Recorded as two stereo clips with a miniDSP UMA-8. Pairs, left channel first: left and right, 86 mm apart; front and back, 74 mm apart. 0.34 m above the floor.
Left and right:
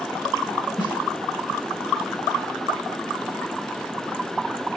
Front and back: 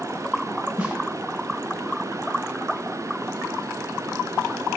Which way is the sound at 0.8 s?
110° left.